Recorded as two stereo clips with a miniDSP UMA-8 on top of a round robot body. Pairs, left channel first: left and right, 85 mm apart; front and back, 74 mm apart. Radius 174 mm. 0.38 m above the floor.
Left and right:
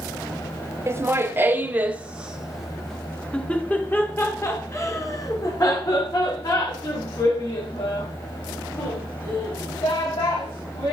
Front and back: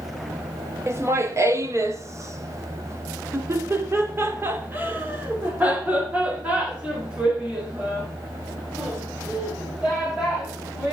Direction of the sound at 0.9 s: 140° right.